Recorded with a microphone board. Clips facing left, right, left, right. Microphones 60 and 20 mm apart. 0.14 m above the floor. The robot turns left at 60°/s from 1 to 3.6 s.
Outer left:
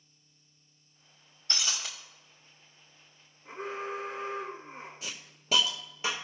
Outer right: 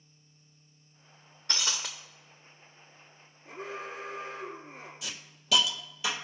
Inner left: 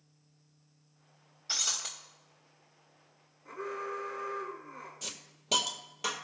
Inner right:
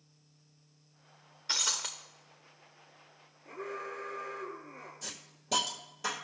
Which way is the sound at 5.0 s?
40° left (ahead or behind).